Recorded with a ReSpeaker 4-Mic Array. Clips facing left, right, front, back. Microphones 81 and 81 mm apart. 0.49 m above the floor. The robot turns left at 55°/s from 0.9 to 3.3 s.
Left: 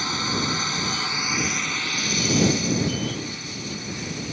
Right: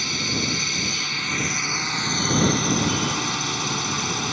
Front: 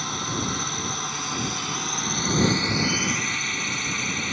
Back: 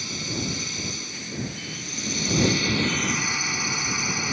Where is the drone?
35° left; by 4.3 s 100° right.